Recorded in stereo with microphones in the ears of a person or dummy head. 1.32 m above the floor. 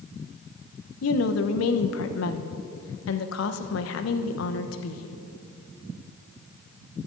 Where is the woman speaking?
75° left (ahead or behind), 0.9 m.